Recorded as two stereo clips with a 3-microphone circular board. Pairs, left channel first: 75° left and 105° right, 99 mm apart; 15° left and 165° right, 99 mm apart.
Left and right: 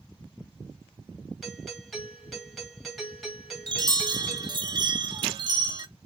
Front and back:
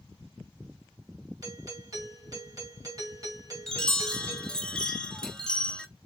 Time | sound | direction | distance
1.4 | a doorbell | 165° left | 2 m
3.7 | a chime | 65° right | 0.8 m